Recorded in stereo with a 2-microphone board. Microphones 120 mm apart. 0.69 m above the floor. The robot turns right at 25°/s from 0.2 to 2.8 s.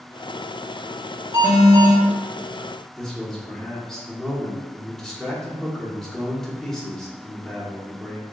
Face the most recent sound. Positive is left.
turn(degrees=5)  # may be behind; listen again after turning